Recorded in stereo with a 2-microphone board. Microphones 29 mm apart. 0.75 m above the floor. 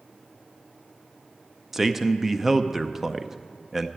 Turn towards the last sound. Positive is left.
turn(degrees=-10)  # may be behind; listen again after turning